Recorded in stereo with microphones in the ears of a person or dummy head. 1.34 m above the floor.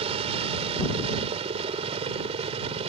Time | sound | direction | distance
0.0 | a helicopter | 25° right (ahead or behind) | ?